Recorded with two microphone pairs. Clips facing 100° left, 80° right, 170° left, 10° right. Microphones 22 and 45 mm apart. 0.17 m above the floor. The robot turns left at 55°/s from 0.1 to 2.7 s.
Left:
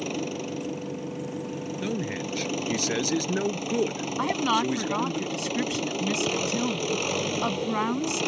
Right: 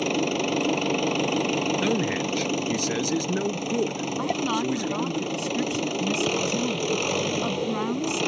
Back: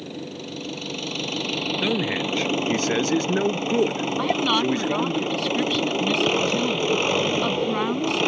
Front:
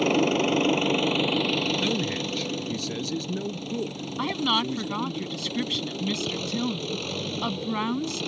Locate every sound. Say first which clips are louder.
0.0 s an engine running: right 6 dB, front 12 dB; 15° right; by 8.3 s 160° right
1.8 s a man speaking: right 6 dB, back 4 dB; 130° right; by 5.2 s 175° right
4.2 s a woman speaking: left 2 dB, back 3 dB; 95° left